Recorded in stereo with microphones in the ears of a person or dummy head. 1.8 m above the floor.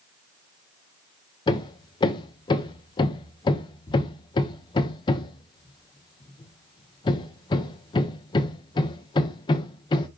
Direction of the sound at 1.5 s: 25° left (ahead or behind).